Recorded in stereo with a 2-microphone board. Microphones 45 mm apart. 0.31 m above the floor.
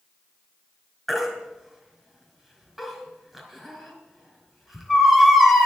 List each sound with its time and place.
1.1 s a baby crying: 5° right (ahead or behind), 3.5 m